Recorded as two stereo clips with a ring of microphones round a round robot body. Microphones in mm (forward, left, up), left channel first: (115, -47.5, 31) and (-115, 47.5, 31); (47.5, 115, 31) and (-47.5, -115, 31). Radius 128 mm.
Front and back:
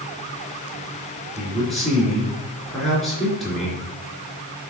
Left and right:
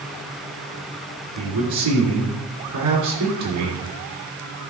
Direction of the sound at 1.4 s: 110° right.